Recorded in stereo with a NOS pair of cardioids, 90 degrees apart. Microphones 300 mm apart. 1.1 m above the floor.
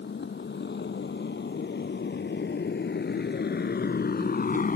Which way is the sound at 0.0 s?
40° left.